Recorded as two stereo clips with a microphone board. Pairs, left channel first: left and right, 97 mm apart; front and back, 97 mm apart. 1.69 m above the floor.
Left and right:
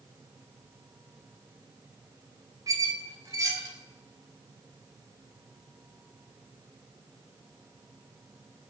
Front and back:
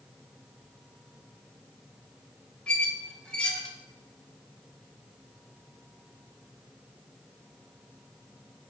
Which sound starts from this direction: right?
A squeak, at 2.7 s.